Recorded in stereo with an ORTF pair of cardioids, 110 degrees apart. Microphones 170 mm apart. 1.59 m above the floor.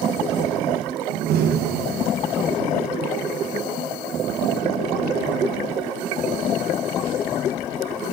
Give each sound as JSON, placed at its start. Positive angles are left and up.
{"t": 1.1, "sound": "a door slam", "azimuth_deg": -70, "distance_m": 1.3}